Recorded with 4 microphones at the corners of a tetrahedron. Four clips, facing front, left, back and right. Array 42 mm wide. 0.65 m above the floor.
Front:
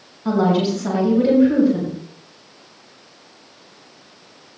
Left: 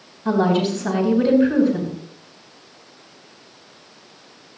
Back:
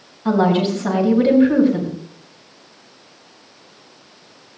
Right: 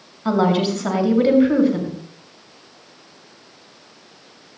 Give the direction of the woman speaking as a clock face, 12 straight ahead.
4 o'clock.